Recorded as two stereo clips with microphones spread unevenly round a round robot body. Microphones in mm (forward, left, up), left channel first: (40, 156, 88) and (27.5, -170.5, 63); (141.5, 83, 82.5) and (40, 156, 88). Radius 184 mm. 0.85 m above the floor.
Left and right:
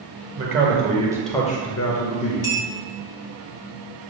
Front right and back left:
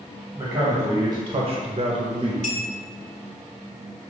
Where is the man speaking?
140° right, 1.3 m; by 2.3 s 95° left, 1.1 m.